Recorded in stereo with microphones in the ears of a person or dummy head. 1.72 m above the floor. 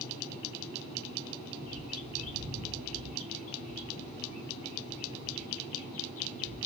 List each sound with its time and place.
1.6 s a bird: 35° left (ahead or behind), 1.1 m